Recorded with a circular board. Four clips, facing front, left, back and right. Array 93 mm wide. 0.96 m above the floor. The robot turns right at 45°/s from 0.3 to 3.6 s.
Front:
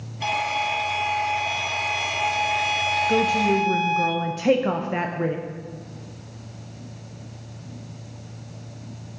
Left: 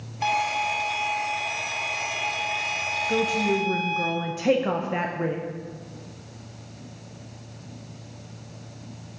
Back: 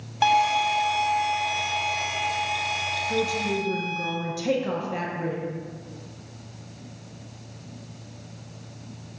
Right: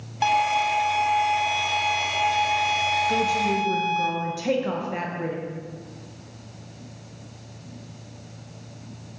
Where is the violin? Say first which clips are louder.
Right 4 dB, back 5 dB; 155° right, 0.8 m; by 4.1 s 10° right, 0.8 m.